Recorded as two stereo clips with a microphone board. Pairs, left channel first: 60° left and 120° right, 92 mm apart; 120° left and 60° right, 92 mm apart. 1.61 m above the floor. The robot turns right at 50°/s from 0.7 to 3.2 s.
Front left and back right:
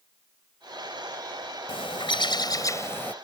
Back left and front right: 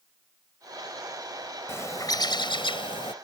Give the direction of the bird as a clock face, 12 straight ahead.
10 o'clock.